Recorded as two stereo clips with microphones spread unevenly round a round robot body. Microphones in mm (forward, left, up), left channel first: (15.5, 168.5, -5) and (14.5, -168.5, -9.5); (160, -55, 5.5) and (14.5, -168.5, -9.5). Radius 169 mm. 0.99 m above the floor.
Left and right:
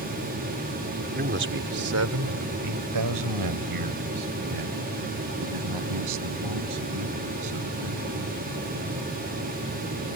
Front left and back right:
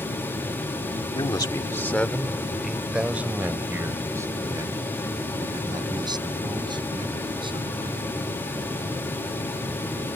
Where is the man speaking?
25° right; by 8.1 s 80° right.